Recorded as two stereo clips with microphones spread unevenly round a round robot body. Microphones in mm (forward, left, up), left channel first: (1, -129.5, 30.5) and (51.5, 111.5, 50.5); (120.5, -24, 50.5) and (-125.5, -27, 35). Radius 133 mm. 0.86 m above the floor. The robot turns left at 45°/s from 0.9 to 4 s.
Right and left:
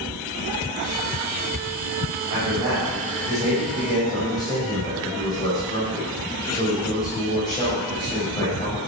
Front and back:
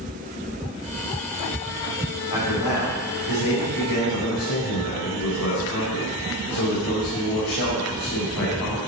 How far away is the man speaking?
About 4.5 m.